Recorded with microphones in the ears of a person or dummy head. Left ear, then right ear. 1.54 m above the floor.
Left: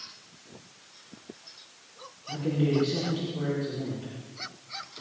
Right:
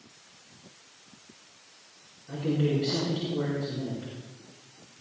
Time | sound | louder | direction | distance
2.3 | a man speaking | left 1 dB | 20° right (ahead or behind) | 5 m